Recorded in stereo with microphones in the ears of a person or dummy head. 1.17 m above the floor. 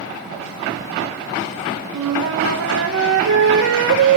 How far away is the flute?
About 1.0 m.